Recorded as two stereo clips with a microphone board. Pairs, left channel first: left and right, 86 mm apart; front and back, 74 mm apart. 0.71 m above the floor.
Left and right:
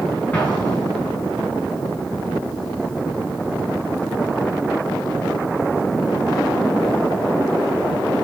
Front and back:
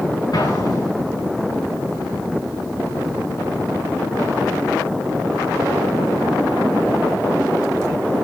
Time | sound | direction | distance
0.3 | an explosion | 15° left | 6.5 m